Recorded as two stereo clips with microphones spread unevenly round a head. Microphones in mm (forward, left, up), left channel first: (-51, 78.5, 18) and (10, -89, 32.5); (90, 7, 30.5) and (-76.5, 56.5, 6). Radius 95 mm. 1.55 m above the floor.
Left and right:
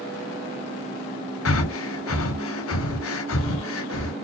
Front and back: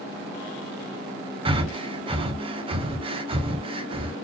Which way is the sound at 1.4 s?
100° left.